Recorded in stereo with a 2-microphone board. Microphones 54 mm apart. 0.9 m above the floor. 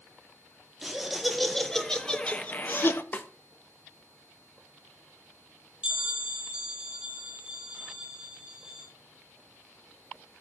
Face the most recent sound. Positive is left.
turn(degrees=-20)  # may be behind; listen again after turning